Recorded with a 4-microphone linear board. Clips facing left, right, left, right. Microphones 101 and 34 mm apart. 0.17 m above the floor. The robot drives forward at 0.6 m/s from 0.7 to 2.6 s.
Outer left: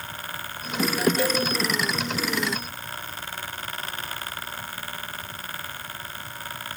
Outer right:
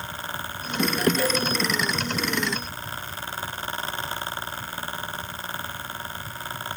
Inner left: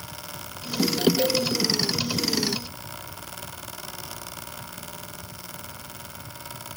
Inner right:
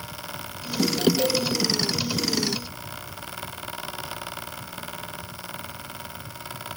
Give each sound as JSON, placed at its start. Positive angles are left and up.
{"t": 1.2, "sound": "a cowbell", "side_deg": 15, "distance_m": 2.5}